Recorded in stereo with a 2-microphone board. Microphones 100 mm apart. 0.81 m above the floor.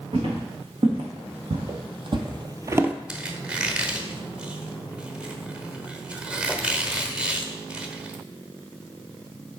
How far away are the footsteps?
About 3.5 m.